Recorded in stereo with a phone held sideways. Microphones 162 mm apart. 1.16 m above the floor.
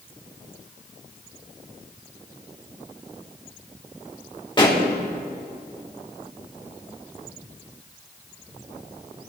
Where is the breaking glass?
I don't hear breaking glass.